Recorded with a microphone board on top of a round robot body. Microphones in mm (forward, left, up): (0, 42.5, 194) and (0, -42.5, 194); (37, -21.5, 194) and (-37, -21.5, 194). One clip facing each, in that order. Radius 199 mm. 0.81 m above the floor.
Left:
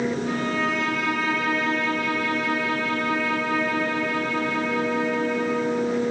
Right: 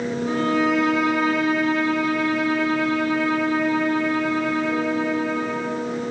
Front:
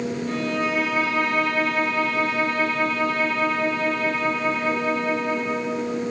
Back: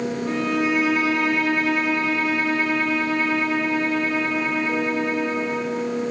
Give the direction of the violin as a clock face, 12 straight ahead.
5 o'clock.